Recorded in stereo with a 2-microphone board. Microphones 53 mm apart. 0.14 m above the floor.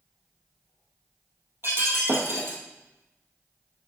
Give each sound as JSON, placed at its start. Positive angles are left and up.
{"t": 1.6, "sound": "breaking glass", "side_deg": -50, "distance_m": 1.9}